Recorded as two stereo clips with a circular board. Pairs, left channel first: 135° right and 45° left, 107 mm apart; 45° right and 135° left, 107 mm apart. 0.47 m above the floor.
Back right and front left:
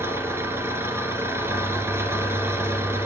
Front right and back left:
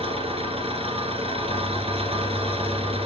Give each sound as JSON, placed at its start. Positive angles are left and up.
{"t": 0.0, "sound": "an engine running", "azimuth_deg": 110, "distance_m": 1.8}